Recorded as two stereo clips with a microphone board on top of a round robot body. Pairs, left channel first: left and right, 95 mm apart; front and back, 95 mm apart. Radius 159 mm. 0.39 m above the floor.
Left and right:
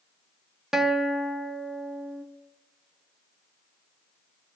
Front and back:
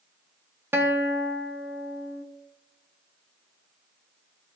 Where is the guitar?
170° right, 1.4 m.